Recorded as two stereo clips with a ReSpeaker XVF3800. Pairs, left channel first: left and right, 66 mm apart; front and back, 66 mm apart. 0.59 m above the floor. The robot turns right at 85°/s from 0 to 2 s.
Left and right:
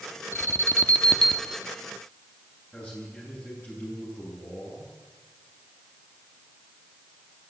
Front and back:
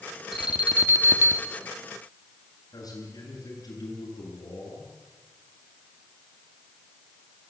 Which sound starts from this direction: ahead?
A man speaking, at 2.7 s.